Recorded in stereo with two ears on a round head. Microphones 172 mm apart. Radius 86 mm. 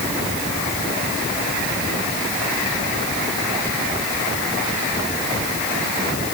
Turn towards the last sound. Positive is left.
No sound to turn to.